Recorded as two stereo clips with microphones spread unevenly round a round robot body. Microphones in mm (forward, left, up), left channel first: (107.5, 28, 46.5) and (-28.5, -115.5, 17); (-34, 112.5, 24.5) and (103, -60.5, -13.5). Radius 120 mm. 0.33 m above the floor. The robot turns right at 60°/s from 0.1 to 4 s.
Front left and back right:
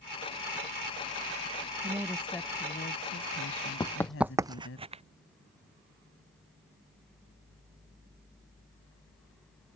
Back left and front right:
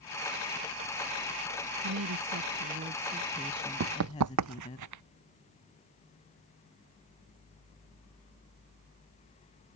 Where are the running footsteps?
15° right; by 5.0 s 70° right.